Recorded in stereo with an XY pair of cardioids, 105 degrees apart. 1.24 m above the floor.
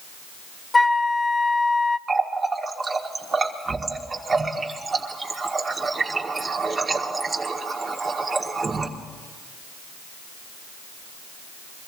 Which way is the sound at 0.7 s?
20° left.